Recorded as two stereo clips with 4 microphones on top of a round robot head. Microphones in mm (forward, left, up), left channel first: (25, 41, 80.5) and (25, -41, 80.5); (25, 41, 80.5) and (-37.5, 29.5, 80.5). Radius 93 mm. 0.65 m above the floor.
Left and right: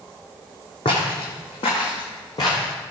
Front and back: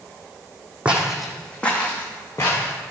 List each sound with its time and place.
0.8 s footsteps: 120° left, 1.5 m; by 2.7 s 60° left, 3 m